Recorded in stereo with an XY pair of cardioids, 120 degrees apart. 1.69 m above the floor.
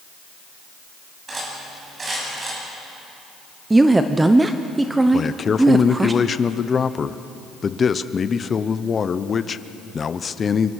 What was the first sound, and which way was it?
Cutlery clinking, 30° right.